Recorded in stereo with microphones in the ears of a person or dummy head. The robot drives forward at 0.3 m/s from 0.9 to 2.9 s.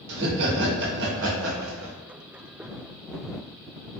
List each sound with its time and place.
0.1 s laughter: 65° right (ahead or behind), 0.9 m; by 2.0 s 85° right, 0.8 m